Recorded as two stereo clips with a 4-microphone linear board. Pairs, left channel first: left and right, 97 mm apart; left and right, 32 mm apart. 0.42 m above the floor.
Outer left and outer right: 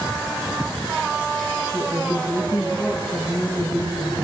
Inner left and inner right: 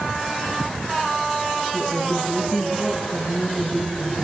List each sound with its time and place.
1.7 s a woman speaking: 80° left, 6.5 m